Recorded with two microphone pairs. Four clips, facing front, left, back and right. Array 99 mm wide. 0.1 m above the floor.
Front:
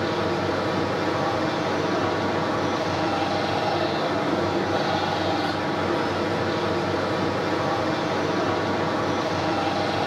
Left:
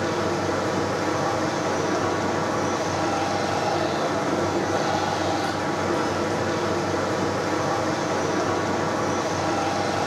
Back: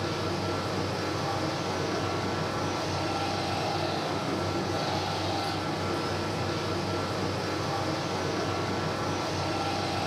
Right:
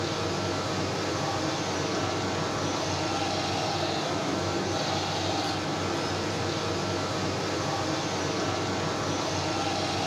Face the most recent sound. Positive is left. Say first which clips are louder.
# left 6 dB, front 7 dB
turn(degrees=50)